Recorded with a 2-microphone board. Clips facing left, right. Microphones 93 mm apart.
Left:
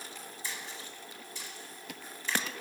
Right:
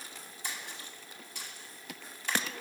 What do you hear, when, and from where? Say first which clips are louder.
0.4 s a splash: right 1 dB; 60° right (ahead or behind), 2 m